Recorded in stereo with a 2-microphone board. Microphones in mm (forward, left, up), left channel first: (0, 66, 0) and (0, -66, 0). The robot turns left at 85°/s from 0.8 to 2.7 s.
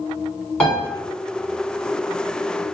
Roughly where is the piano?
Centre.